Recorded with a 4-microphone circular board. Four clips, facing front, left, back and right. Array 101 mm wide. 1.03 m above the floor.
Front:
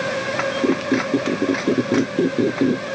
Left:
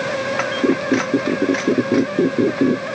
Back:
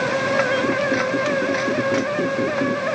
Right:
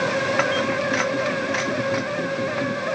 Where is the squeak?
65° left.